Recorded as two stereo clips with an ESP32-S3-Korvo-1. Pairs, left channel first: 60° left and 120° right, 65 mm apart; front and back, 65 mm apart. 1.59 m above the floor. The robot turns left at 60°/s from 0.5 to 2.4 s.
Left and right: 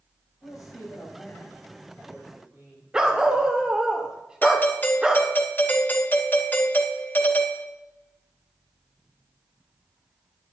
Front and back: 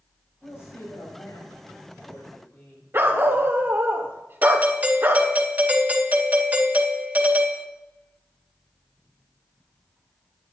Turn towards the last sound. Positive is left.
turn(degrees=120)